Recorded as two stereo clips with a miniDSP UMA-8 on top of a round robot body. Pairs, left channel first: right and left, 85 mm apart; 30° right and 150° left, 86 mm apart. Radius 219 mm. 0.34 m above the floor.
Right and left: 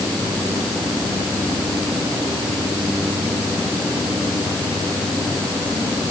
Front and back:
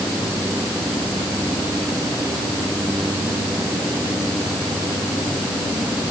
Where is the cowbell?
No cowbell in this recording.